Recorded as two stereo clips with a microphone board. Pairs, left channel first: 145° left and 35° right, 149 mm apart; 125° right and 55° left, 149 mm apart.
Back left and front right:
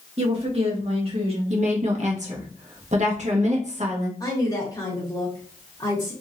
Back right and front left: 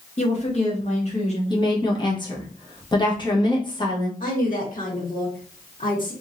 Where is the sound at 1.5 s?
70° right, 1.1 m.